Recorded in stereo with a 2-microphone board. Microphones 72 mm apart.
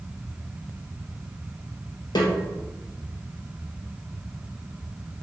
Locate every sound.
2.1 s a snare drum: 75° left (ahead or behind), 2 m